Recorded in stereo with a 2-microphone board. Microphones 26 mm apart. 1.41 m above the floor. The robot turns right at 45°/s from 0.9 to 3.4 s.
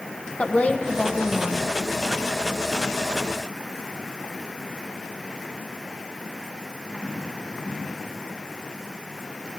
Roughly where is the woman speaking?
Ahead left.